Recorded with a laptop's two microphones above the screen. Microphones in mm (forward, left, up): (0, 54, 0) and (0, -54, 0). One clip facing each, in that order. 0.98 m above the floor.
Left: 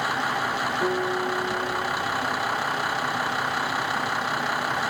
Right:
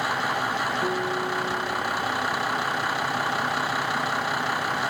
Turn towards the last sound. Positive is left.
turn(degrees=40)  # may be behind; listen again after turning